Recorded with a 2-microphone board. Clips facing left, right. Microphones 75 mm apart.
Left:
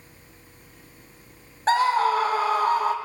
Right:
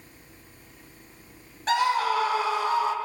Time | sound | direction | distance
1.7 | a scream | 35° left (ahead or behind) | 3.5 m